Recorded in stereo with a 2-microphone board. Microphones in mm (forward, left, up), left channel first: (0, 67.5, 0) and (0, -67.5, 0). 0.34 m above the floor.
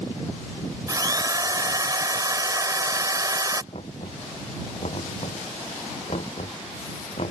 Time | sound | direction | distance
0.9 | a drill | 30° right (ahead or behind) | ?
3.7 | knocking | 50° left (ahead or behind) | ?